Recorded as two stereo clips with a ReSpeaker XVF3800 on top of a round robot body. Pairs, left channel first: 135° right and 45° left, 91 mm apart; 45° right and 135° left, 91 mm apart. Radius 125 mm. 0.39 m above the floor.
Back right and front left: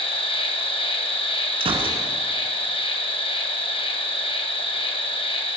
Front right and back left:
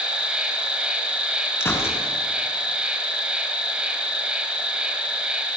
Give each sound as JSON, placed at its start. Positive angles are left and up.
{"t": 0.0, "sound": "an insect", "azimuth_deg": -145, "distance_m": 4.0}
{"t": 1.6, "sound": "a gunshot", "azimuth_deg": 20, "distance_m": 4.5}